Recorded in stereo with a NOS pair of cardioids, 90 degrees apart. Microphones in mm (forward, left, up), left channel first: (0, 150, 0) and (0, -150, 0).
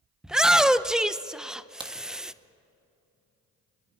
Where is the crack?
15° right, 1.7 m.